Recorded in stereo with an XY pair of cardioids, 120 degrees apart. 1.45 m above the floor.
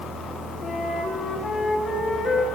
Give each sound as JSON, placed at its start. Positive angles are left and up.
{"t": 0.6, "sound": "a flute", "azimuth_deg": 35, "distance_m": 1.9}